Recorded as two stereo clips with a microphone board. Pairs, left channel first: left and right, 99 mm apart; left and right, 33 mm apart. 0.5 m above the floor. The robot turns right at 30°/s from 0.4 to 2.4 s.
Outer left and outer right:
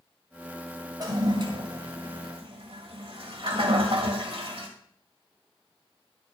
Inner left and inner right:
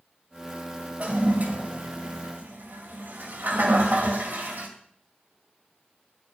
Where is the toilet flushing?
40° right (ahead or behind), 2 m; by 4.7 s 70° right (ahead or behind), 2 m.